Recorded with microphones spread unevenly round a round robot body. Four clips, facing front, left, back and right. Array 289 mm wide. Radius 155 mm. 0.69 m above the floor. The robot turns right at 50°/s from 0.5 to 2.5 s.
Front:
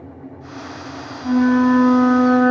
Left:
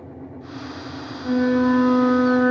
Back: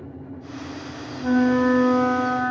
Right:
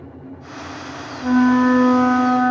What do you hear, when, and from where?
1.2 s a flute: 110° right, 1.6 m; by 2.5 s 45° right, 1.6 m